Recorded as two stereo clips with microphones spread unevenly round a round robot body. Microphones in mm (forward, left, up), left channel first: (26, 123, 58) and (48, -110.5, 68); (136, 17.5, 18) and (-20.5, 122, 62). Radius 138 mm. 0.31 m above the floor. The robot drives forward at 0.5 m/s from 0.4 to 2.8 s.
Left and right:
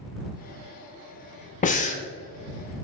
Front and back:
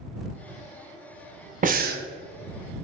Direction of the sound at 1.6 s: 110° left.